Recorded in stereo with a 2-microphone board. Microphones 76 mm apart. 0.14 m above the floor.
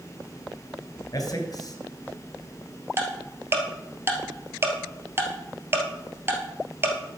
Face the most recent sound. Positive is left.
turn(degrees=-30)  # may be behind; listen again after turning